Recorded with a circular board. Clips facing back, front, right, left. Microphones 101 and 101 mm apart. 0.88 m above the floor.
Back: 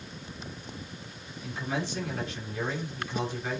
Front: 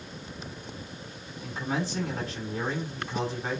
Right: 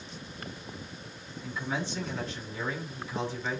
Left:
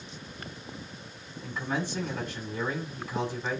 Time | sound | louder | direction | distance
1.4 | a man speaking | front 2 dB, left 2 dB | 50° left | 7.5 m